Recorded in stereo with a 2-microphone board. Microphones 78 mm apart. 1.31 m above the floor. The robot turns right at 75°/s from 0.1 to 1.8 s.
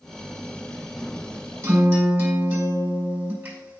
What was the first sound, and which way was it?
A guitar, 40° right (ahead or behind).